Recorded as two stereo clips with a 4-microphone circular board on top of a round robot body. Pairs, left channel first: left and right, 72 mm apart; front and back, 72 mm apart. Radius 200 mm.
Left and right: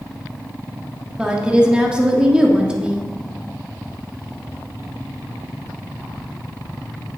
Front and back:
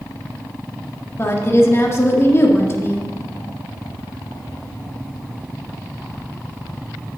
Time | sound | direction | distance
1.2 | a woman speaking | 20° right | 1.5 m